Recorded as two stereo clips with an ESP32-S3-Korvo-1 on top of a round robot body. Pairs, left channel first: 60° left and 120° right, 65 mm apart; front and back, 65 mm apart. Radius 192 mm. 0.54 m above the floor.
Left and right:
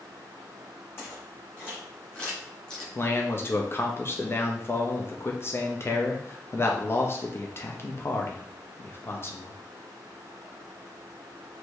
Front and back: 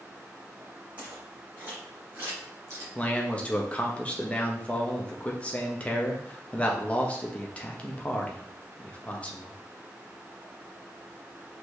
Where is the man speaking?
60° left, 0.9 m.